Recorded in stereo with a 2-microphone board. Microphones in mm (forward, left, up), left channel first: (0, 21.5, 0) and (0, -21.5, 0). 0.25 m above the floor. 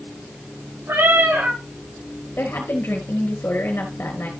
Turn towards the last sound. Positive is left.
turn(degrees=60)  # may be behind; listen again after turning